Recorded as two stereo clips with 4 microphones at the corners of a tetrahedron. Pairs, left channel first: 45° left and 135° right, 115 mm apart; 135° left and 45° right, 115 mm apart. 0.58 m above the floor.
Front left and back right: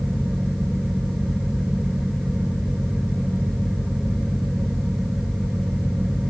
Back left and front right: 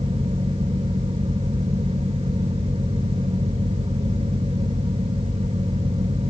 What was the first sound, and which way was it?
Only background noise.